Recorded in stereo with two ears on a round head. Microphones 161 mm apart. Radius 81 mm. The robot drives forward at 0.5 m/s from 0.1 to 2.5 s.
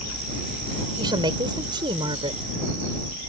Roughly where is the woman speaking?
Right.